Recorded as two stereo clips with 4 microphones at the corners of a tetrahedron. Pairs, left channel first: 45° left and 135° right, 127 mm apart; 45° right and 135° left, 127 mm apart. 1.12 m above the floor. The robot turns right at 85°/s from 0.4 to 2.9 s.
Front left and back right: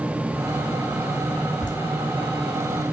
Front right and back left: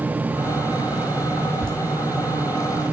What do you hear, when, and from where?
1.6 s laughter: 35° left, 3.5 m; by 1.7 s 45° left, 3.5 m